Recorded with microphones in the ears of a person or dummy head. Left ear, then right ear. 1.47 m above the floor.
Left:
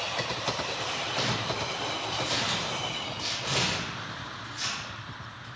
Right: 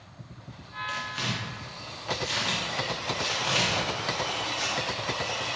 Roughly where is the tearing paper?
Right.